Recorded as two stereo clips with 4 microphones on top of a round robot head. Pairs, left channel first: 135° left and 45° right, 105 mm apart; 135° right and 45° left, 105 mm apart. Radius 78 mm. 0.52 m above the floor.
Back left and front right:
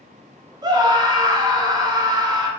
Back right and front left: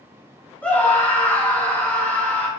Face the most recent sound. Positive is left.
turn(degrees=-65)